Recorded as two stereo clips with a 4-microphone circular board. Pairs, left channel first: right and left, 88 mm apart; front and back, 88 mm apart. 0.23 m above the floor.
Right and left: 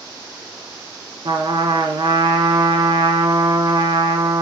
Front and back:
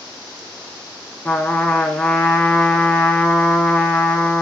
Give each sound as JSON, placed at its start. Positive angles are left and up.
{"t": 1.2, "sound": "a trumpet", "azimuth_deg": 75, "distance_m": 1.4}